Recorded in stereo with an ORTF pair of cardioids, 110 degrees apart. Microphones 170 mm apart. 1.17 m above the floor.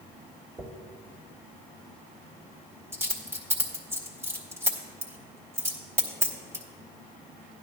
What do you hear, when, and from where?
0.6 s a dropped coin: 15° right, 1.9 m